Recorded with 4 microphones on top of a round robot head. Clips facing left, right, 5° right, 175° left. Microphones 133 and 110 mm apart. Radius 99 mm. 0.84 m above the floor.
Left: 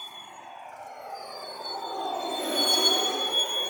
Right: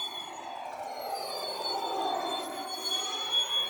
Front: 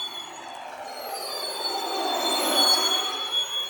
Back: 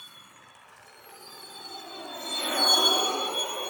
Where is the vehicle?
25° right; by 3.7 s 135° left.